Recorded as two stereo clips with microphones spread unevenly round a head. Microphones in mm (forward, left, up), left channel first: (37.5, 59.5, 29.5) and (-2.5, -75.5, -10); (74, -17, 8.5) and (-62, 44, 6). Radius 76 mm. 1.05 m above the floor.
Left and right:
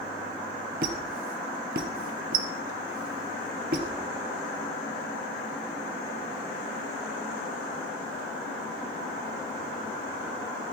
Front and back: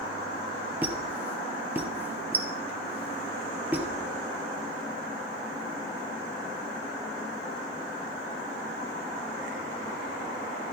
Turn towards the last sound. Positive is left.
turn(degrees=-125)